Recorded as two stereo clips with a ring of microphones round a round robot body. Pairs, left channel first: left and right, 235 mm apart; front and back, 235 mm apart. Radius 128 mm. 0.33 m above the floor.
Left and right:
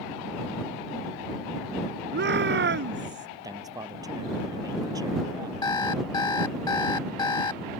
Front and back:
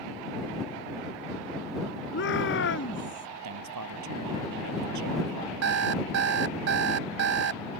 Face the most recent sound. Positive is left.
turn(degrees=165)